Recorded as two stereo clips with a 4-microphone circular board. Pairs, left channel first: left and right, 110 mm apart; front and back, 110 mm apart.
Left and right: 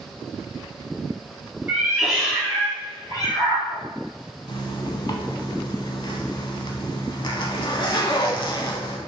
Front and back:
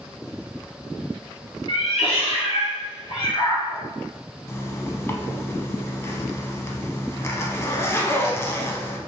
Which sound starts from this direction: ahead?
A cat meowing, at 1.7 s.